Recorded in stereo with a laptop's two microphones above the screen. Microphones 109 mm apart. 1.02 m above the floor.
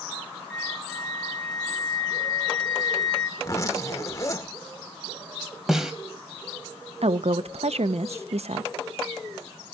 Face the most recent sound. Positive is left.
turn(degrees=-70)  # may be behind; listen again after turning